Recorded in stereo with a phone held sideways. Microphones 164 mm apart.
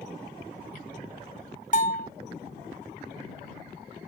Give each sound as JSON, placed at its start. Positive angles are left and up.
{"t": 1.7, "sound": "a bell", "side_deg": 50}